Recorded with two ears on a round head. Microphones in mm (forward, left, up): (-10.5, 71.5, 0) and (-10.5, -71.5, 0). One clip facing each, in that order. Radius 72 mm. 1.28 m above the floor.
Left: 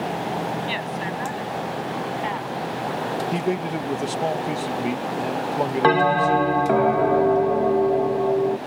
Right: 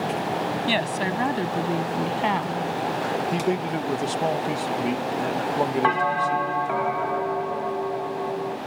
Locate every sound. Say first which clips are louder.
0.7 s a woman speaking: right 3 dB; 55° right (ahead or behind); by 2.7 s 60° right (ahead or behind)
3.3 s a man speaking: even; 5° left (ahead or behind)
5.8 s a bell: left 5 dB; 45° left (ahead or behind)